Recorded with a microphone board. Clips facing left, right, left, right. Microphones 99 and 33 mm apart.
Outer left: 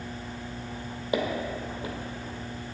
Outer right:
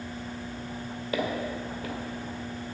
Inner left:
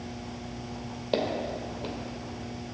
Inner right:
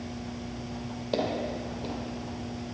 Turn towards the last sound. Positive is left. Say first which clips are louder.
# outer left 2 dB, inner left 1 dB
turn(degrees=25)  # may be behind; listen again after turning